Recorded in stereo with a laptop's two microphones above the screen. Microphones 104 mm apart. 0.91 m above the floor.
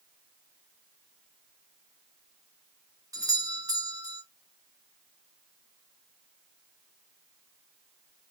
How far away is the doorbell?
About 1.0 m.